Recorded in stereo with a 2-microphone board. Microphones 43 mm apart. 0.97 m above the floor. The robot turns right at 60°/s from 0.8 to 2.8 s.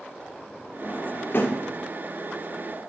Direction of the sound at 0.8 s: 20° left (ahead or behind).